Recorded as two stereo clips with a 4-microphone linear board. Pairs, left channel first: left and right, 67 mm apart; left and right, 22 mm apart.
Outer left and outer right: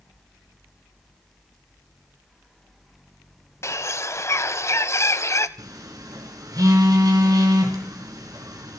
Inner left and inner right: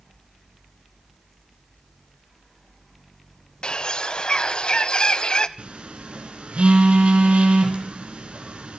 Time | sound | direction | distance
3.6 | a bird | 45° left (ahead or behind) | 1.0 m
5.6 | a phone buzzing | 70° right (ahead or behind) | 4.5 m